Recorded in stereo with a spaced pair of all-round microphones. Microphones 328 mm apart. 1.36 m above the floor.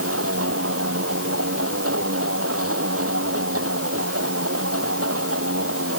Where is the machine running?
45° right (ahead or behind).